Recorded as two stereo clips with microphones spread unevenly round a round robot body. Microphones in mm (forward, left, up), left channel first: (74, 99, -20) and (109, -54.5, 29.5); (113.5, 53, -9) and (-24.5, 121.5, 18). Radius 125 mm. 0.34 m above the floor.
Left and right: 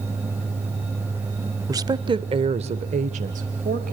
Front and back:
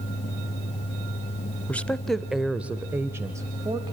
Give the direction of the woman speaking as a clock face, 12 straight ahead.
12 o'clock.